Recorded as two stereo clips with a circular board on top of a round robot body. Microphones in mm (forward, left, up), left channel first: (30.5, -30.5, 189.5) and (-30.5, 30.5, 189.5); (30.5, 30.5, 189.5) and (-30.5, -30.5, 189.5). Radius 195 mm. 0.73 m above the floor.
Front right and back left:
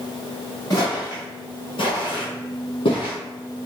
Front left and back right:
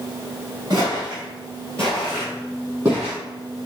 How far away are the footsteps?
About 0.7 m.